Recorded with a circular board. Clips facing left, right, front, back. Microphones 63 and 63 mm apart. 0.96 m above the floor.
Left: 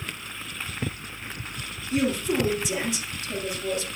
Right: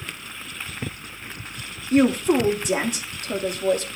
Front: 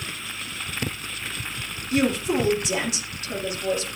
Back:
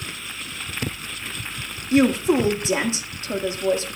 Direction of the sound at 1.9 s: 125° right.